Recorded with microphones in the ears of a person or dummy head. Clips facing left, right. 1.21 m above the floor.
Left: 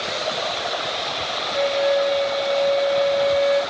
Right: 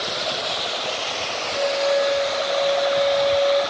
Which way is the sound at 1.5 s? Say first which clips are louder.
Left 1 dB; 30° left (ahead or behind).